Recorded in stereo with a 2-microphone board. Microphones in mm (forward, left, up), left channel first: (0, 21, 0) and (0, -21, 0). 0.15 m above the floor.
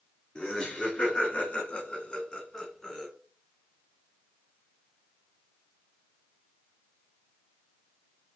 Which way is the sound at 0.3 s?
30° left (ahead or behind).